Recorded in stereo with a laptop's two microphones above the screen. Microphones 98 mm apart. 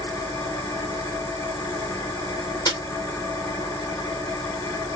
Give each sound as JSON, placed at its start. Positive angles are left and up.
{"t": 0.0, "sound": "an engine running", "side_deg": 30, "distance_m": 0.9}
{"t": 2.7, "sound": "a snare drum", "side_deg": 40, "distance_m": 1.1}